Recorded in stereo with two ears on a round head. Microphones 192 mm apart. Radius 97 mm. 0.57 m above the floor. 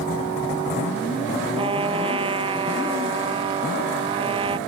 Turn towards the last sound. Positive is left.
turn(degrees=-30)  # may be behind; listen again after turning